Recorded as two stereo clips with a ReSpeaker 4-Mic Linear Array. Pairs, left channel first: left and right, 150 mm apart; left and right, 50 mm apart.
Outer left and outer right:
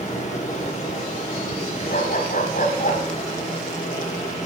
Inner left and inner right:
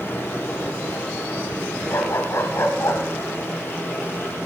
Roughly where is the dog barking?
Left.